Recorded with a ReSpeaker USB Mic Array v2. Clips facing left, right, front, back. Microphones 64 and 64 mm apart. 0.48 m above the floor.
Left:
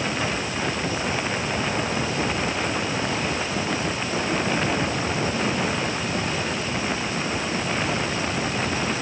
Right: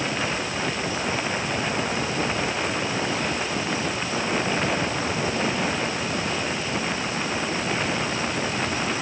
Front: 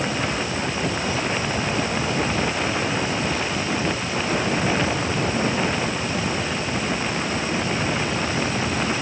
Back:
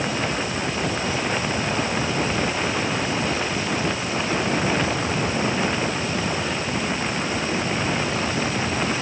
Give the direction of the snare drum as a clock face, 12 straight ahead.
I don't hear a snare drum.